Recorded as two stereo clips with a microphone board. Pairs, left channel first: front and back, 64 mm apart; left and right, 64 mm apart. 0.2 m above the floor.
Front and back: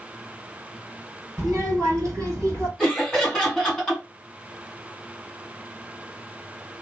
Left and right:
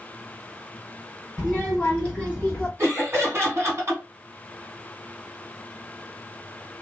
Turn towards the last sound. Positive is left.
turn(degrees=-100)